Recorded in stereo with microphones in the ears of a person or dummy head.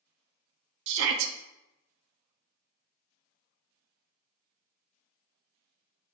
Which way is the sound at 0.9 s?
65° right (ahead or behind).